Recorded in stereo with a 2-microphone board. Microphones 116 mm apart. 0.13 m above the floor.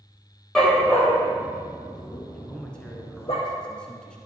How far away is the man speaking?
About 1.5 m.